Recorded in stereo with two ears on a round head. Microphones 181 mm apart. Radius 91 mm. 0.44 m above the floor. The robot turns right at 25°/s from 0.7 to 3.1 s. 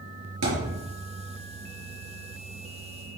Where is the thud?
85° right, 4.5 m.